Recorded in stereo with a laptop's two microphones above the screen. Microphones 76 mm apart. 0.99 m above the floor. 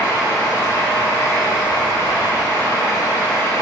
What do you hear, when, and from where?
0.0 s a fan: 35° left (ahead or behind), 0.9 m